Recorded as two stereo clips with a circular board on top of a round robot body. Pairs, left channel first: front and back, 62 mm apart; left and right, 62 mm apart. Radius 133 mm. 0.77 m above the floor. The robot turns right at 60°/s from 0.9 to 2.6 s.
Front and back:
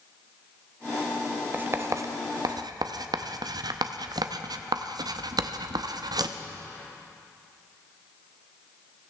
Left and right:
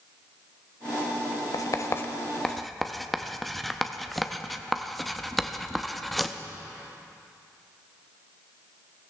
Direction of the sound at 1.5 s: 115° left.